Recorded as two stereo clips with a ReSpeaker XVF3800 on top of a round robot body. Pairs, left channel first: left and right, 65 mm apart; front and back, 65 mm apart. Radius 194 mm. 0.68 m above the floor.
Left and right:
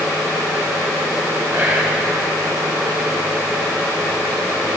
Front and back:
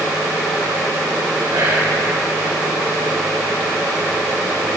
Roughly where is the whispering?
Behind right.